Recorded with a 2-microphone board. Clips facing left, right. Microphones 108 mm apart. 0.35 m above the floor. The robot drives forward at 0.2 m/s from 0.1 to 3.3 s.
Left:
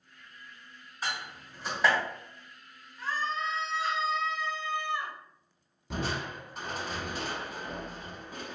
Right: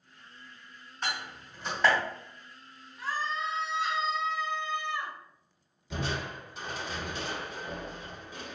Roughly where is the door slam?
Centre.